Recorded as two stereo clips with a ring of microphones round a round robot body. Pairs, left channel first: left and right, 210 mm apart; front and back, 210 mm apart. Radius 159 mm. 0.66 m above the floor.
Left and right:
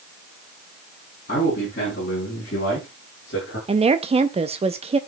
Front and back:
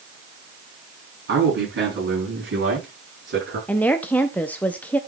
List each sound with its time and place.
1.3 s a man speaking: 150° left, 6 m; by 3.6 s 145° left, 7 m
3.7 s a woman speaking: 75° right, 0.6 m